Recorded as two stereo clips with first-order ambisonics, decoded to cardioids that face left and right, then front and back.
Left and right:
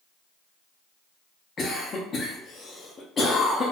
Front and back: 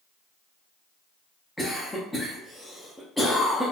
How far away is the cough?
About 0.6 m.